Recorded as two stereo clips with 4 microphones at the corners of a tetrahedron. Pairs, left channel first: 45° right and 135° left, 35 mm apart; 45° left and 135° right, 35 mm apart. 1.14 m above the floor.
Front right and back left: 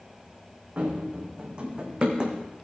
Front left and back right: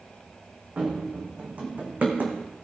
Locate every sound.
0.8 s running footsteps: straight behind, 3 m; by 2.4 s 165° right, 2.5 m